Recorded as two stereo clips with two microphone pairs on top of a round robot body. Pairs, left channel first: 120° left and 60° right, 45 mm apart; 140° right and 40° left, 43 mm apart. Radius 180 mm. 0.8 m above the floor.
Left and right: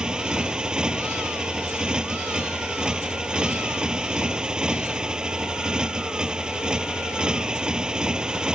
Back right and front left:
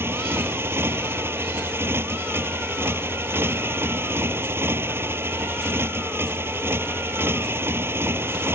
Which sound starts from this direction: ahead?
A motorcycle, at 0.0 s.